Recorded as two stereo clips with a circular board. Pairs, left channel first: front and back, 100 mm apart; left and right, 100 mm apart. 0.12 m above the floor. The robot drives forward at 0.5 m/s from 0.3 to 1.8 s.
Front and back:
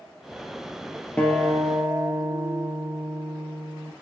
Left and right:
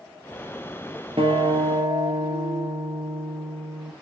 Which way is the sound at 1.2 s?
75° right.